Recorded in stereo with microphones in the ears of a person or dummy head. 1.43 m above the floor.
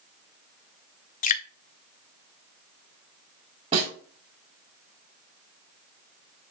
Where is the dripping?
45° left (ahead or behind), 0.6 m.